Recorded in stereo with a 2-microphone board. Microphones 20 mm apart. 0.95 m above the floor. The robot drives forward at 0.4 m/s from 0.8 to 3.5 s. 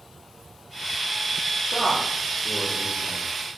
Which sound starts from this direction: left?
A man speaking, at 1.7 s.